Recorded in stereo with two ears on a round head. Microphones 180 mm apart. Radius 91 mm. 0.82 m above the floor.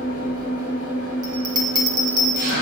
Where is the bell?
20° right (ahead or behind), 1.3 m.